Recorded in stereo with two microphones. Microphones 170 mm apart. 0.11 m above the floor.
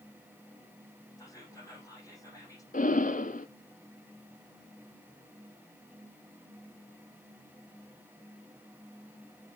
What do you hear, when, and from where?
1.2 s whispering: 20° left (ahead or behind), 4.5 m
2.7 s breathing: 50° left (ahead or behind), 0.6 m